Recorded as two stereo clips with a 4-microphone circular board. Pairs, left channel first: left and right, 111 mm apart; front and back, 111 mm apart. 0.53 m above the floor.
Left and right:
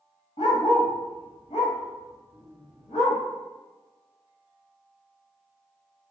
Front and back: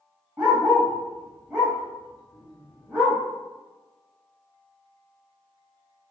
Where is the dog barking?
100° left, 1.3 m.